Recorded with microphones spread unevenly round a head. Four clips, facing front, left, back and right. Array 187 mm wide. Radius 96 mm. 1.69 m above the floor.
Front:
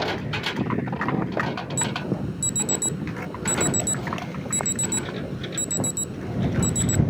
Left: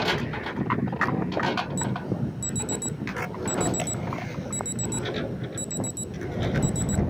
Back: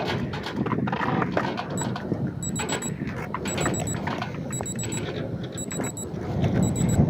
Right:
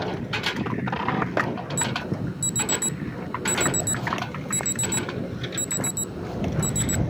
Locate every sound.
1.8 s an alarm: 35° right